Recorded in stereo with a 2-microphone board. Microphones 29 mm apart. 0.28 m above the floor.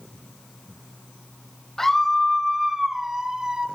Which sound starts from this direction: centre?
A scream, at 1.8 s.